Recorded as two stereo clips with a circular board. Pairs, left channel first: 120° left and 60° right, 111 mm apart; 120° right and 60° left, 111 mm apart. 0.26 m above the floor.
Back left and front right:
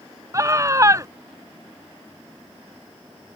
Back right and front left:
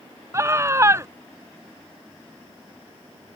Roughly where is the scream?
Ahead.